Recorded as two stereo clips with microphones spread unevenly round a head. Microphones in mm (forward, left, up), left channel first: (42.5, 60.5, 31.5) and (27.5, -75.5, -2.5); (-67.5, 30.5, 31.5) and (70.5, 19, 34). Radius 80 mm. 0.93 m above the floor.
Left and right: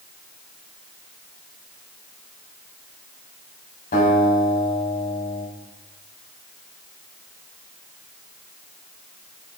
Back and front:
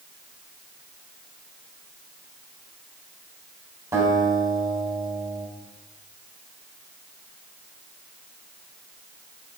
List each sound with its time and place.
3.9 s a guitar: 65° left, 3.5 m